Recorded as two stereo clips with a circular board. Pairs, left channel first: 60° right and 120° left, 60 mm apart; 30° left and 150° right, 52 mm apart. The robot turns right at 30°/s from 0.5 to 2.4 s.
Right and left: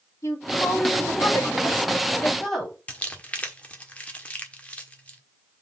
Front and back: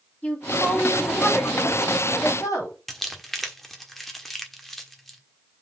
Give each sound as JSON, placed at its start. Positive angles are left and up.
{"t": 0.2, "sound": "a woman speaking", "azimuth_deg": -35, "distance_m": 4.5}
{"t": 2.9, "sound": "crumpling", "azimuth_deg": -50, "distance_m": 1.3}